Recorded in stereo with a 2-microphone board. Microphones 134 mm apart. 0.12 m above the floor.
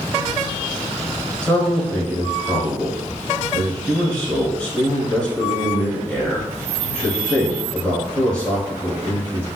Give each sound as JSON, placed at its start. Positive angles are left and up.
{"t": 1.4, "sound": "a man speaking", "side_deg": 10, "distance_m": 1.3}